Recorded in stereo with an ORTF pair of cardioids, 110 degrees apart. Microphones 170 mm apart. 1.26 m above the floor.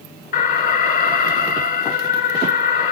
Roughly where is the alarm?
Ahead left.